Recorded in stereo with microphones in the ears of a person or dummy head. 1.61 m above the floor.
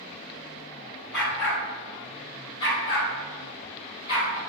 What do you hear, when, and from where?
1.1 s a dog barking: centre (ahead or behind), 1.1 m; by 4.4 s 35° left (ahead or behind), 3 m